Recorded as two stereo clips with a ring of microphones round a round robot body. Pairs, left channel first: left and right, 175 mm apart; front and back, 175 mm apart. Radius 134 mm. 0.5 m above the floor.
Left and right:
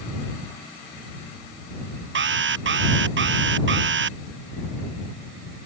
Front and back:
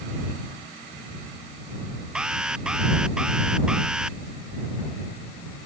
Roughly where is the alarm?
Right.